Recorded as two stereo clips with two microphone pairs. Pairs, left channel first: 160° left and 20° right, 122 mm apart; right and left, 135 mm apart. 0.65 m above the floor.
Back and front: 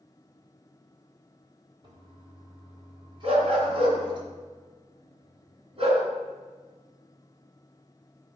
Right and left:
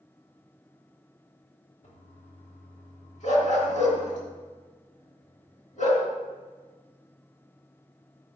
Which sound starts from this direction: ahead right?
A dog barking, at 3.2 s.